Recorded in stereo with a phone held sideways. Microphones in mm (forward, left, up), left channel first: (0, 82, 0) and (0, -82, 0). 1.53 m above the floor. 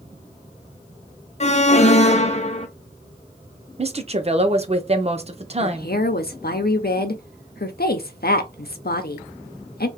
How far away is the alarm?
About 0.6 m.